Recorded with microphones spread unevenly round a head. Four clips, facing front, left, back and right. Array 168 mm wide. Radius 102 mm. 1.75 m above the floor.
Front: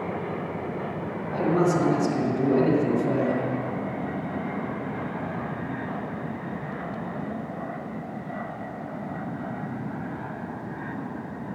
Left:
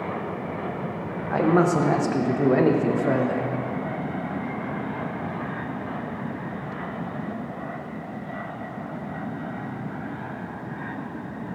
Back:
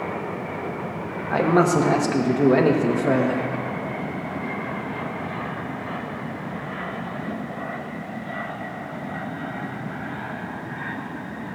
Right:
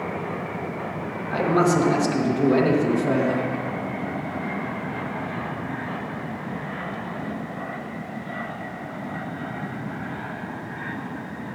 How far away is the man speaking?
About 1.0 m.